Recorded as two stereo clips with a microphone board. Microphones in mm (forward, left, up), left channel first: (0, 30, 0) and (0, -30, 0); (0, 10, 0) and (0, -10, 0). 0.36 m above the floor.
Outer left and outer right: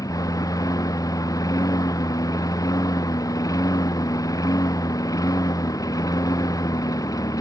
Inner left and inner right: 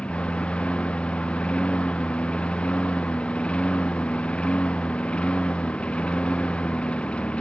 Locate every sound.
0.0 s a lawn mower: 75° left (ahead or behind)